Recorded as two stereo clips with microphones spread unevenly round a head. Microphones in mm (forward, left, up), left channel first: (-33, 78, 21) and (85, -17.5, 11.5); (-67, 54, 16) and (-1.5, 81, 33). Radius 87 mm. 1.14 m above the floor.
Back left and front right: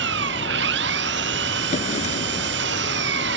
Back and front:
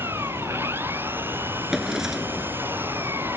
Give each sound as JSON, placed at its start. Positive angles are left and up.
{"t": 0.0, "sound": "an engine running", "azimuth_deg": -55}
{"t": 1.7, "sound": "a drawer", "azimuth_deg": 100}